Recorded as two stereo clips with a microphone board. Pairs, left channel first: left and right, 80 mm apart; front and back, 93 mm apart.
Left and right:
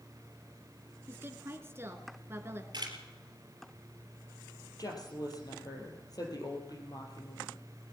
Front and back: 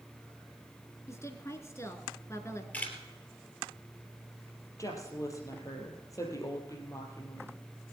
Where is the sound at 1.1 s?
45° right, 1.5 m.